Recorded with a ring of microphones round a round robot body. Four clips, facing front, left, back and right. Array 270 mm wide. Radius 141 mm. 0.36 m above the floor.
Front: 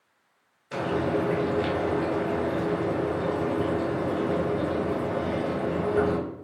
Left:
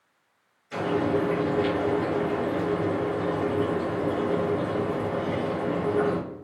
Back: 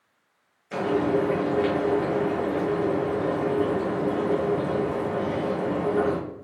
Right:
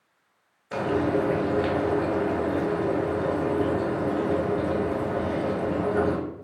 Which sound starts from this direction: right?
Frying, at 0.7 s.